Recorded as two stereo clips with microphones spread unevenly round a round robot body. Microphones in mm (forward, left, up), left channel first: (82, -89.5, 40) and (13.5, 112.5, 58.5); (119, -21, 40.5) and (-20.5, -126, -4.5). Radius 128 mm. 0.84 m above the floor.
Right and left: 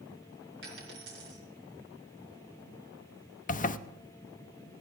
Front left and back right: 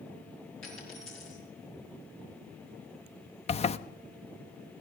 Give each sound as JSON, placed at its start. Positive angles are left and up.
{"t": 0.6, "sound": "a dropped coin", "azimuth_deg": 75, "distance_m": 5.0}
{"t": 3.5, "sound": "a zipper", "azimuth_deg": -25, "distance_m": 0.6}